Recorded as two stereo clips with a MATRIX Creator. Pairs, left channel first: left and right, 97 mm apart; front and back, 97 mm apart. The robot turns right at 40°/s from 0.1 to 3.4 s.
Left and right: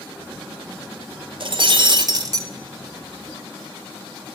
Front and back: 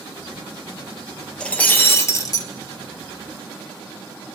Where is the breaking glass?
80° right, 1.5 m; by 2.5 s 35° right, 1.5 m.